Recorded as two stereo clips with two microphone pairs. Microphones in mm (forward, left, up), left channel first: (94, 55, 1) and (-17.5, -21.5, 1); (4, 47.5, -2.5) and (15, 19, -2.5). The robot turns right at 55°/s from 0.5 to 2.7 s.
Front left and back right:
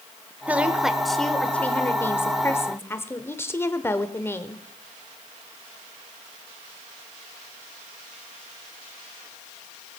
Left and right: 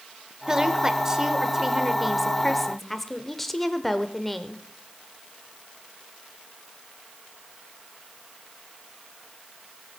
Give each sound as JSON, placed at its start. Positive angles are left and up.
{"t": 0.5, "sound": "a woman speaking", "azimuth_deg": -80, "distance_m": 0.8}